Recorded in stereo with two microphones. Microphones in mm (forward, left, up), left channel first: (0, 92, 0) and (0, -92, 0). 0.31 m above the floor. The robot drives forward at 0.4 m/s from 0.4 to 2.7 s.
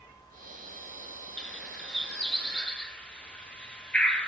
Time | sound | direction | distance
1.4 | a bird | 5° left (ahead or behind) | 2 m